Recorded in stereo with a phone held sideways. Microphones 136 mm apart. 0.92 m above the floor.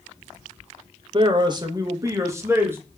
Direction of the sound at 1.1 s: 35° right (ahead or behind).